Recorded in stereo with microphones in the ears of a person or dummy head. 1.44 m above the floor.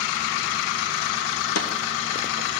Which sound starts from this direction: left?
A snare drum, at 1.6 s.